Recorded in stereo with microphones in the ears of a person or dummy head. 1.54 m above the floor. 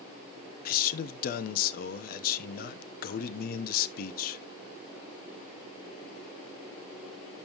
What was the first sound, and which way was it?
A man speaking, 55° left (ahead or behind).